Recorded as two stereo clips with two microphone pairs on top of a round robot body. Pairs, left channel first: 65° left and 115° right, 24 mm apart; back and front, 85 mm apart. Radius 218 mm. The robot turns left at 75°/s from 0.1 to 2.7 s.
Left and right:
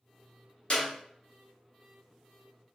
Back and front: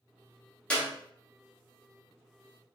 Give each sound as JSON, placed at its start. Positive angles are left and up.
{"t": 0.7, "sound": "a clap", "azimuth_deg": 105, "distance_m": 1.5}